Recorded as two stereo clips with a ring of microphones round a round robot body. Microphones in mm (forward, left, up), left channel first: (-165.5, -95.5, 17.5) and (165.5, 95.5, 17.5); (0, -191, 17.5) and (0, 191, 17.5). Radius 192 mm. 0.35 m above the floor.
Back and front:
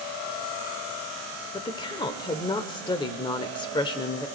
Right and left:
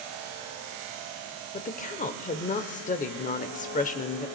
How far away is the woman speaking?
About 0.8 m.